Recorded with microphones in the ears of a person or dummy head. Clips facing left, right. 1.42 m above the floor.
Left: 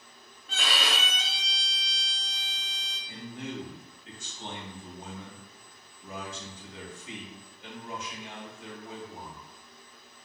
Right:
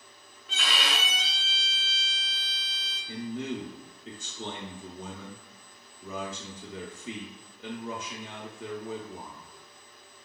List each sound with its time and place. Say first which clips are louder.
0.5 s a violin: left 1 dB; 45° left (ahead or behind), 1.0 m
3.1 s a man speaking: right 5 dB; 60° right (ahead or behind), 0.8 m